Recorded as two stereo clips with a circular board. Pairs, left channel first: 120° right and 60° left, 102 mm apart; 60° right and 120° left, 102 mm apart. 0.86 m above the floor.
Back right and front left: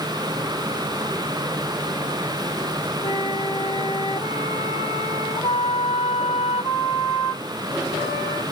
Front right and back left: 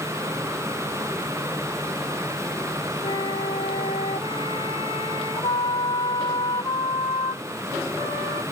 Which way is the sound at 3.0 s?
90° right.